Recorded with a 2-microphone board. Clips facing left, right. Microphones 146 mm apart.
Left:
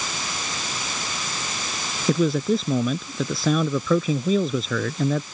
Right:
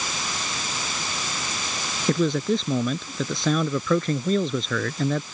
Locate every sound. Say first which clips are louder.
2.1 s a man speaking: left 2 dB; 5° left (ahead or behind)